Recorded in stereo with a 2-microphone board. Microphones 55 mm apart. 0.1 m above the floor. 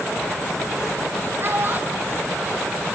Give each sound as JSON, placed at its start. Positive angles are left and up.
{"t": 1.4, "sound": "a child speaking", "side_deg": -40, "distance_m": 2.5}